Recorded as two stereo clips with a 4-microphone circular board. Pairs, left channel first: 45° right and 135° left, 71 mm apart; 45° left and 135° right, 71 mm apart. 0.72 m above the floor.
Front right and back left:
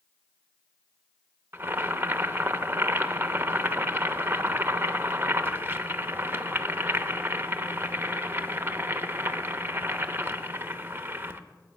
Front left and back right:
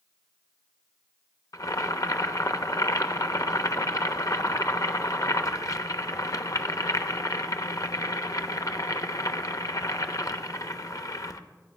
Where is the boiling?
75° left, 0.7 m.